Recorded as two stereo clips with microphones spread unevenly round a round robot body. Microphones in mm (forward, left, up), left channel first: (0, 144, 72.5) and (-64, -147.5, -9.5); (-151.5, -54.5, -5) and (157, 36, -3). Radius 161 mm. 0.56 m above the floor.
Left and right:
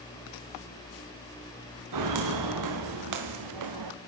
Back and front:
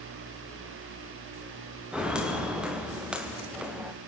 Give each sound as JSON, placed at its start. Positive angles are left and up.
{"t": 1.9, "sound": "footsteps", "azimuth_deg": -70, "distance_m": 5.0}